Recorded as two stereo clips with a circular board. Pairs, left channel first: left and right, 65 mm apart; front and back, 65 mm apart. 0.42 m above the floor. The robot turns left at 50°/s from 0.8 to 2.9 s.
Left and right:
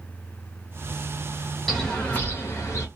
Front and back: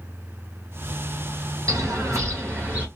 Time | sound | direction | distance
1.7 | a bird | 175° left | 1.8 m